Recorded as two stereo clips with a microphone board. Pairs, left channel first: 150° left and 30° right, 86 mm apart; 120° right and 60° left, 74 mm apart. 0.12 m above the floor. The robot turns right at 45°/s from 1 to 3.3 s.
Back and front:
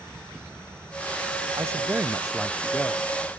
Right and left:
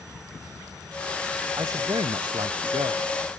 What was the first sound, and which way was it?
A man speaking, 20° left.